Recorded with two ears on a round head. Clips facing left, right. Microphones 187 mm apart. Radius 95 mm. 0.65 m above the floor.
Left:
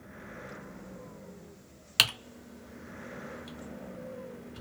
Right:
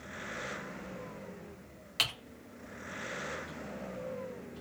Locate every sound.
2.0 s typing on a keyboard: 60° left (ahead or behind), 0.8 m